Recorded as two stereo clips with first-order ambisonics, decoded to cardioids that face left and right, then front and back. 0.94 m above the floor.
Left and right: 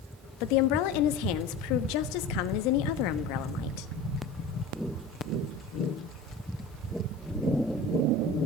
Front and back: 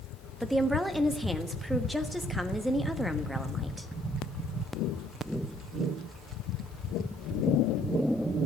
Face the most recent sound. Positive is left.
turn(degrees=95)